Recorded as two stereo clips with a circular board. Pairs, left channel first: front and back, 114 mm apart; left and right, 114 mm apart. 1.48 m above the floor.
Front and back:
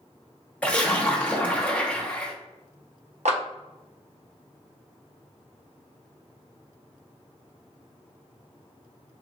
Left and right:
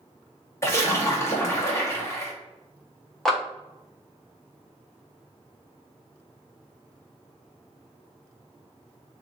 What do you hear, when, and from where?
0.6 s a splash: 65° left, 1.0 m
3.2 s a clap: 175° left, 1.0 m